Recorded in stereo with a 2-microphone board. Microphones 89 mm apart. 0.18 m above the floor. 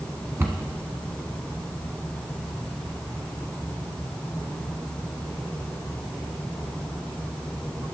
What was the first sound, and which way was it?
A cupboard door, 30° right (ahead or behind).